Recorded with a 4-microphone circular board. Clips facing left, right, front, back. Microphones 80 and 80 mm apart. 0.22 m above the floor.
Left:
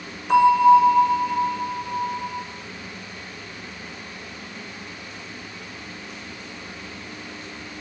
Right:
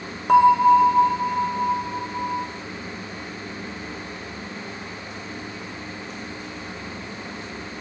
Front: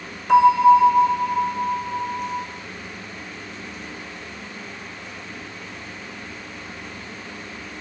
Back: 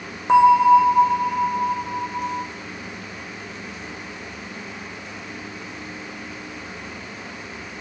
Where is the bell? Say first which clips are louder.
Even, even; 120° right, 1.1 m.